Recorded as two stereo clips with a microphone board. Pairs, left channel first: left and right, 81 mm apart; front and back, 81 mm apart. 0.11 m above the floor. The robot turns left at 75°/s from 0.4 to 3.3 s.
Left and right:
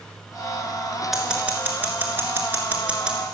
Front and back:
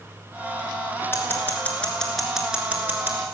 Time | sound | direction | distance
1.1 | scissors | 5° right | 1.8 m